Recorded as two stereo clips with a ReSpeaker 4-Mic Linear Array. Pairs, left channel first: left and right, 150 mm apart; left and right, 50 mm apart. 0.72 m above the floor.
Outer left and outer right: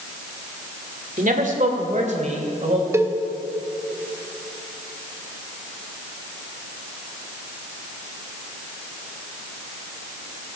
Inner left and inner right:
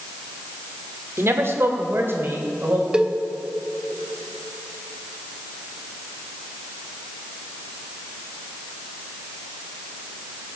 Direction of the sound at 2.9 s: 20° right (ahead or behind).